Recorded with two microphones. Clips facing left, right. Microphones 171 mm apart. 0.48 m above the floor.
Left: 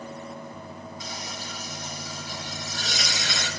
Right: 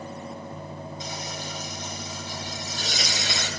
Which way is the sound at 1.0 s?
25° right (ahead or behind).